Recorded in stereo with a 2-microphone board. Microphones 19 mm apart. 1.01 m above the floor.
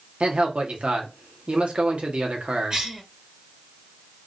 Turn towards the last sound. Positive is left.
turn(degrees=-40)  # may be behind; listen again after turning